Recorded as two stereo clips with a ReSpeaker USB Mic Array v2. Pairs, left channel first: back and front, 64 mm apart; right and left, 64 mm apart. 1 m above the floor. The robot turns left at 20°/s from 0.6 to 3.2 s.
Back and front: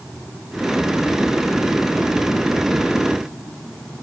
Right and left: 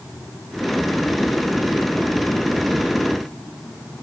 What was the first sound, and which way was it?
Only background noise.